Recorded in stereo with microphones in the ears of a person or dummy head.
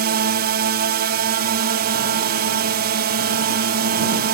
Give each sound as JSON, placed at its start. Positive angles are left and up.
{"t": 0.0, "sound": "a drone", "side_deg": -50}